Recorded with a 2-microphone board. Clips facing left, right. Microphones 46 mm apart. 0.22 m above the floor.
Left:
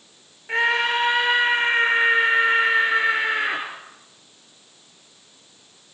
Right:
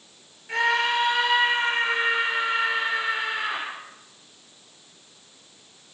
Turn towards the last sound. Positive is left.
turn(degrees=50)  # may be behind; listen again after turning